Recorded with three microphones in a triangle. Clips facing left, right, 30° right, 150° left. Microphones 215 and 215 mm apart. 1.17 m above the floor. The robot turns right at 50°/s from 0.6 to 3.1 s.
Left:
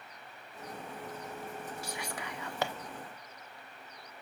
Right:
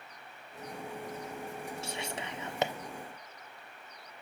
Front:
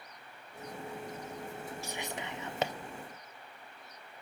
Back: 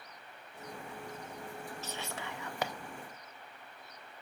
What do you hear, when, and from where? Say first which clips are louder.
1.8 s whispering: right 2 dB, front 2 dB; 90° right, 0.5 m; by 2.7 s 45° right, 0.5 m